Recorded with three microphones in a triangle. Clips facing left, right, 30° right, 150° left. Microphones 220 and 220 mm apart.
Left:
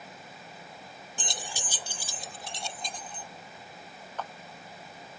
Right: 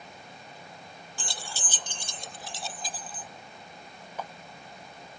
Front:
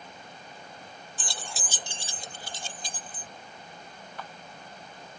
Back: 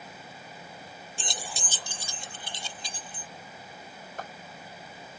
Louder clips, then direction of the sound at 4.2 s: Even, back 3 dB; 170° right.